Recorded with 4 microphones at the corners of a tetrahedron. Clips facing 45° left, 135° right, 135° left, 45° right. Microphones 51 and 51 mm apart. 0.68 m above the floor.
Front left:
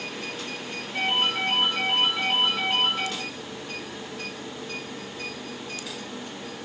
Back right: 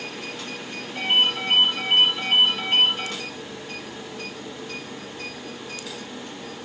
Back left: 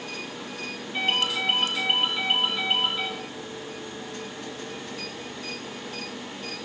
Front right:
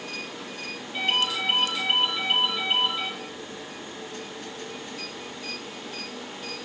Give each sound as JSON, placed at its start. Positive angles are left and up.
{"t": 0.9, "sound": "a ringtone", "azimuth_deg": 60, "distance_m": 4.0}